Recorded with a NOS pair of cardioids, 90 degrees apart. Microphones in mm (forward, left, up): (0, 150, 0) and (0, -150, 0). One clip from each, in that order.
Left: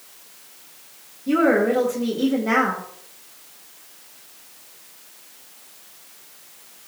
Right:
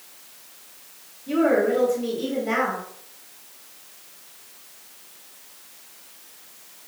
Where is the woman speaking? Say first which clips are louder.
Left 2 dB; 65° left, 3 m.